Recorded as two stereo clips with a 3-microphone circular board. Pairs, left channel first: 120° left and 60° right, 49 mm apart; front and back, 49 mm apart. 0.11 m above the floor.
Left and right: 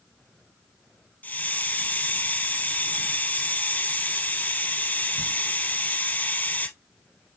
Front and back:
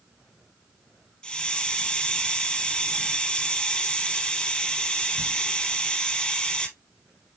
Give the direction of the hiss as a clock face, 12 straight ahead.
10 o'clock.